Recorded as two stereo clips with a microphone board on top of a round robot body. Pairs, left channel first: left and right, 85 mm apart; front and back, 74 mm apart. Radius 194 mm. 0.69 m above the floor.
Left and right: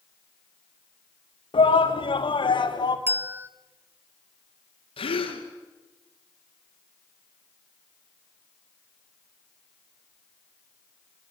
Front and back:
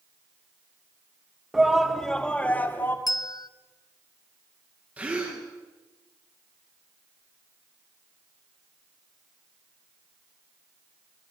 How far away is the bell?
About 0.8 m.